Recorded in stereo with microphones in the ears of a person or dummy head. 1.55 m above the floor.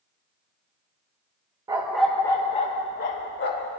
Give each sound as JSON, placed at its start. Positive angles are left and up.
{"t": 1.7, "sound": "a dog barking", "side_deg": -20, "distance_m": 0.9}